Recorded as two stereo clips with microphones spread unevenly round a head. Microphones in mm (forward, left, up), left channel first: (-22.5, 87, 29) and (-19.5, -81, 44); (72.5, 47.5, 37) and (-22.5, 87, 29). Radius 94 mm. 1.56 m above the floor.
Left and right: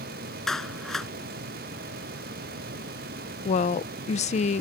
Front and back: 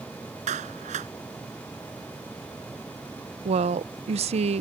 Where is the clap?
Straight behind.